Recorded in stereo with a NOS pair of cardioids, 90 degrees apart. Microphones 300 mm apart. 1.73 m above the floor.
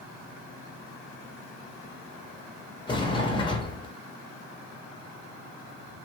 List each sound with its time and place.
2.9 s a sliding door: 15° left, 0.9 m